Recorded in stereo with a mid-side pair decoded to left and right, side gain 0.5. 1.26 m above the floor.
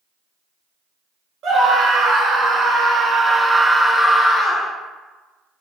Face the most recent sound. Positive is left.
turn(degrees=45)